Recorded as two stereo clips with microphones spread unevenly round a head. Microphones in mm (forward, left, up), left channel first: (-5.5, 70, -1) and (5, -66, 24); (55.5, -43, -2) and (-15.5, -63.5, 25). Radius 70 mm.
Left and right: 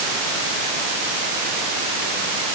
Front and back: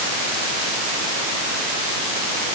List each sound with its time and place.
Only background noise.